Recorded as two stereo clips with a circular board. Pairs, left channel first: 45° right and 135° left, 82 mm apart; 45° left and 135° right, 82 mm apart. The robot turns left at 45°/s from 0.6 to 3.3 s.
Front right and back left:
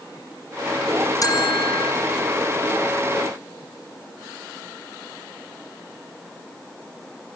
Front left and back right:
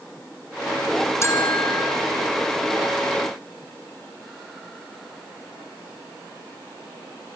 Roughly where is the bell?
Ahead.